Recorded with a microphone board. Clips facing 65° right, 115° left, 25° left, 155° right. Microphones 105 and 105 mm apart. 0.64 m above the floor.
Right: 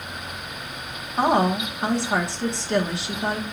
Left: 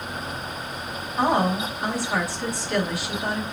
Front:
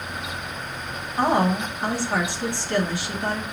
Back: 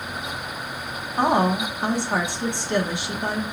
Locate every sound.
1.2 s a woman speaking: 105° right, 1.3 m